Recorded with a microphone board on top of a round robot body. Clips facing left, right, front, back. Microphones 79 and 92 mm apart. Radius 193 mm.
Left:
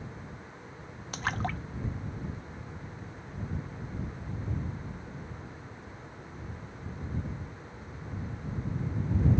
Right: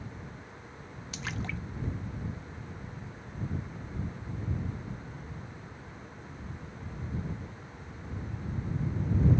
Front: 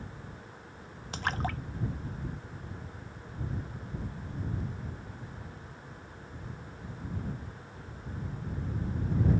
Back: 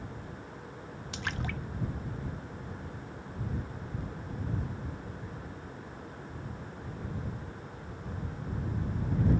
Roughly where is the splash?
Ahead left.